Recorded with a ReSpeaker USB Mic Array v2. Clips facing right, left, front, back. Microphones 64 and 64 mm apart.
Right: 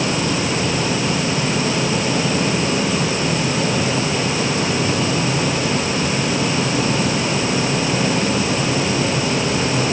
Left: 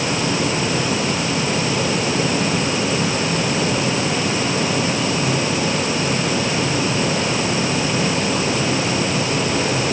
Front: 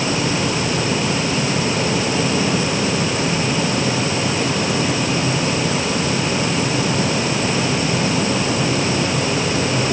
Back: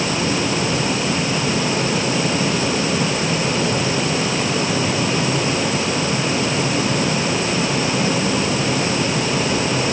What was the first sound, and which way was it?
Only background noise.